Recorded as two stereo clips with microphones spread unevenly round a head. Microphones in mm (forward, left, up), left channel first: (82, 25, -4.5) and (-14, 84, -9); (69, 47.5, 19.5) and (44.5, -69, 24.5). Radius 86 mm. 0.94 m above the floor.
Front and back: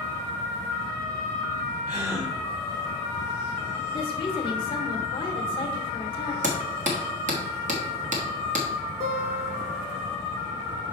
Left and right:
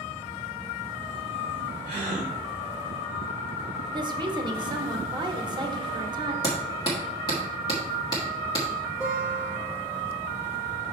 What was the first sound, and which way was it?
A gasp, 155° right.